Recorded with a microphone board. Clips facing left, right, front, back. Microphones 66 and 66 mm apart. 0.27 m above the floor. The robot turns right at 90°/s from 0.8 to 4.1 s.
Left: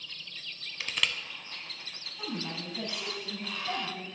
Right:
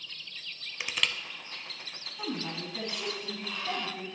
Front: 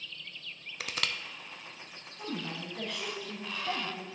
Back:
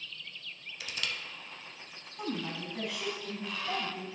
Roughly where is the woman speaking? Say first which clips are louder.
Right 2 dB, back 2 dB; behind.